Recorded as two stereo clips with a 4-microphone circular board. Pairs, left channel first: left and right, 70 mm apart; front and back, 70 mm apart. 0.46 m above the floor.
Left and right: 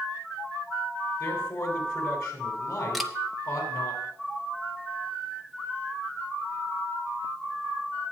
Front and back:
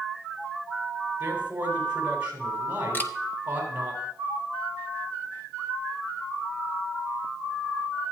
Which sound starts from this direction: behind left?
A man speaking, at 1.2 s.